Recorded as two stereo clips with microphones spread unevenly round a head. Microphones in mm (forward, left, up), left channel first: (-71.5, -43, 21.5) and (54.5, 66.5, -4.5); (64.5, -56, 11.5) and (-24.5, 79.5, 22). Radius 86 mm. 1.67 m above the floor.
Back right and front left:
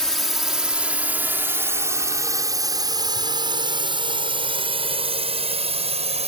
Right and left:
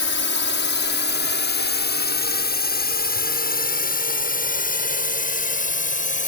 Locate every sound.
0.0 s a drone: 50° right; by 6.3 s 15° right